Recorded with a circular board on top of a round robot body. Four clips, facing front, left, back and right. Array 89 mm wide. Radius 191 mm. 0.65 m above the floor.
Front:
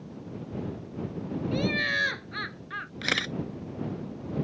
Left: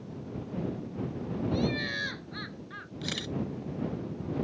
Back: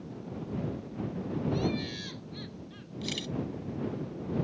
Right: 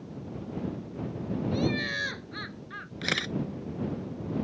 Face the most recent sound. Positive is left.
turn(degrees=-30)